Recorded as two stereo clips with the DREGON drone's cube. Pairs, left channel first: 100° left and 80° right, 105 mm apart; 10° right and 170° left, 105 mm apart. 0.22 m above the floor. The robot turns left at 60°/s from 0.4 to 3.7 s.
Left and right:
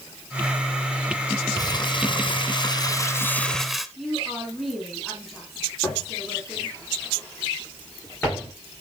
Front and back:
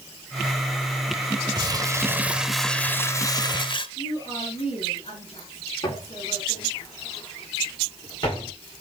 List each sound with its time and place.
1.6 s crumpling: 140° left, 1.1 m; by 3.9 s 10° left, 1.1 m
4.0 s a woman speaking: 15° left, 6.5 m
5.8 s footsteps: 35° left, 9.5 m; by 8.5 s 30° left, 11 m